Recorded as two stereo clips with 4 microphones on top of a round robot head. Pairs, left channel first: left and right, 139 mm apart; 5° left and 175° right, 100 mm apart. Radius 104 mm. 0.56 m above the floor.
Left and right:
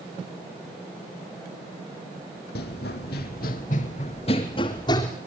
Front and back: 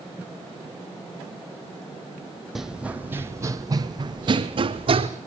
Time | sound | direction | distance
2.5 | running footsteps | 100° left | 1.3 m